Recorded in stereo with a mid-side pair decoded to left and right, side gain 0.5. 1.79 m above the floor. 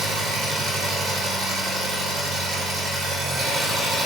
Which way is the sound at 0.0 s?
65° right.